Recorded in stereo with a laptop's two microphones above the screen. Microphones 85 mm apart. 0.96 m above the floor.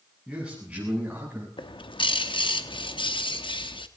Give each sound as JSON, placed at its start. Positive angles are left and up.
{"t": 0.3, "sound": "a man speaking", "side_deg": -10, "distance_m": 7.5}
{"t": 1.6, "sound": "a bird", "side_deg": 80, "distance_m": 1.0}